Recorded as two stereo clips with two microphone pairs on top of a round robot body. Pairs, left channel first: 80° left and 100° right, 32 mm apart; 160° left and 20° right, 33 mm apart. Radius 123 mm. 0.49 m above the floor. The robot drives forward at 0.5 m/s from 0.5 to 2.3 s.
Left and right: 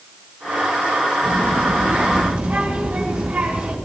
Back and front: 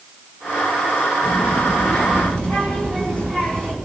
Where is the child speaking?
135° right, 4.5 m.